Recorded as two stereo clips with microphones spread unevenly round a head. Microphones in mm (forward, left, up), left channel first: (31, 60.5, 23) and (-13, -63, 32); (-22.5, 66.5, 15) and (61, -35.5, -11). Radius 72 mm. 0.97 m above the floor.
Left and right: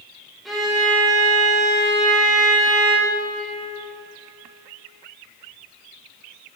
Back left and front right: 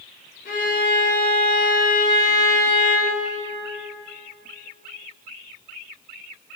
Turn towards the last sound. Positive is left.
turn(degrees=160)